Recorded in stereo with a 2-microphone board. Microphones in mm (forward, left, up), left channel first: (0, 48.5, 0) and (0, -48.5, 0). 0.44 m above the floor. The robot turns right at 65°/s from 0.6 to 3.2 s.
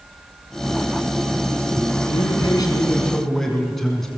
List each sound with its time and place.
2.1 s a man speaking: 100° left, 4.5 m; by 4.1 s 175° left, 4.5 m